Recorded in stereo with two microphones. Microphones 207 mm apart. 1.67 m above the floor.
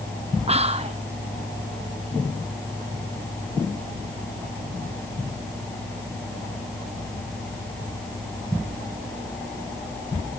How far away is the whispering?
About 0.7 m.